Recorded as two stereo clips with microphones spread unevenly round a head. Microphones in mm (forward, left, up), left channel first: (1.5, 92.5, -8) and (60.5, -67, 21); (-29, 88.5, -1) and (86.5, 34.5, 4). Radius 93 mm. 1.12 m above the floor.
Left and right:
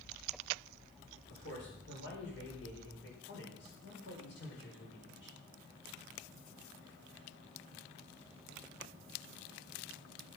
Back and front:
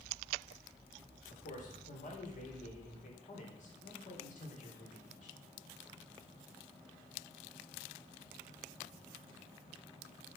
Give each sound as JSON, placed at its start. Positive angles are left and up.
{"t": 1.3, "sound": "a man speaking", "azimuth_deg": 140, "distance_m": 4.5}